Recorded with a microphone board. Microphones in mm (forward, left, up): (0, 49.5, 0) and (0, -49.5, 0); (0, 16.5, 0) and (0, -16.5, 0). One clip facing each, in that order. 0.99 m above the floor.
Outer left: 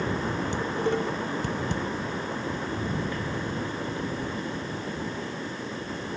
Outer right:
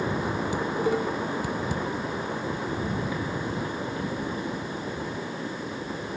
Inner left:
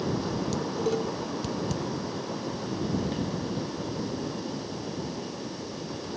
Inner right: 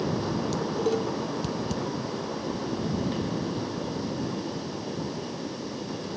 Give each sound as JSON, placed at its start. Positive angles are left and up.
{"t": 0.5, "sound": "dishes clattering", "side_deg": -5}